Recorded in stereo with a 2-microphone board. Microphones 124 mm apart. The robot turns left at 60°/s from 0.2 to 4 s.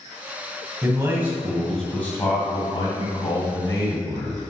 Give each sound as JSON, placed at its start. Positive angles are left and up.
{"t": 0.8, "sound": "a man speaking", "azimuth_deg": -130, "distance_m": 1.7}